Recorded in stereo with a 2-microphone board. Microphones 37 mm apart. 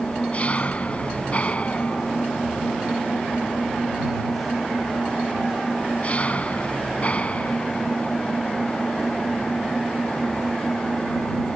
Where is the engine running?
35° left (ahead or behind).